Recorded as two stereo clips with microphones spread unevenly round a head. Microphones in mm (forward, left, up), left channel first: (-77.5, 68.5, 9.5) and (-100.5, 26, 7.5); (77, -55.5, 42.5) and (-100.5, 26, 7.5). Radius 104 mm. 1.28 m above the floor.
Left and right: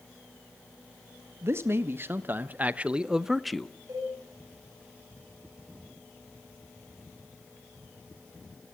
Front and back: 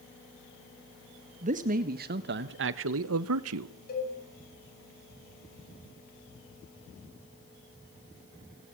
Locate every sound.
1.4 s a man speaking: 150° right, 1.6 m; by 3.7 s 145° left, 1.1 m
3.9 s a cowbell: 70° right, 9 m